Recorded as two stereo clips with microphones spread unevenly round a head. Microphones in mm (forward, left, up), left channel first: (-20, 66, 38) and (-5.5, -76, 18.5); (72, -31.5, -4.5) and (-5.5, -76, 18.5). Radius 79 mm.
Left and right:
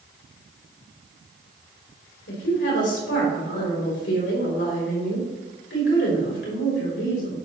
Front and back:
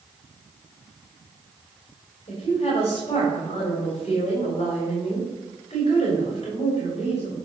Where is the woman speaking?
85° left, 4.5 m.